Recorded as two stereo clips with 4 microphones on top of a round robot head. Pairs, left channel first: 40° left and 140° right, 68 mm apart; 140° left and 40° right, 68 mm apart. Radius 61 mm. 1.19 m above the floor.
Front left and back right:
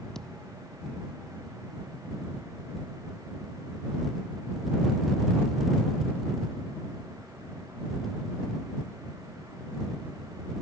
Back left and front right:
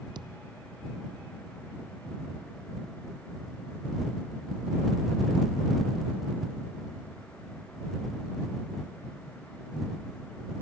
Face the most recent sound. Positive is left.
turn(degrees=-45)